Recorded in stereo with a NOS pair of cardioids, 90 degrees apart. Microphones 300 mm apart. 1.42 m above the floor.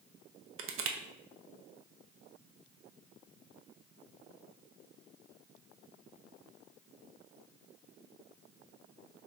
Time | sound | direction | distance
0.6 | crushing | 50° right | 0.6 m